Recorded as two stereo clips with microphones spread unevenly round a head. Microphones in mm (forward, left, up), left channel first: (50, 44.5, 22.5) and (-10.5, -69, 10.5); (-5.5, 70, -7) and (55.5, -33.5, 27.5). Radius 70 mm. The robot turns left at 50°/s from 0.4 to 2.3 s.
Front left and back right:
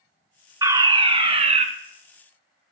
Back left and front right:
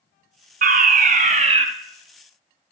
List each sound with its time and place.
0.6 s a fire alarm: 60° right, 1.4 m; by 1.6 s 115° right, 1.4 m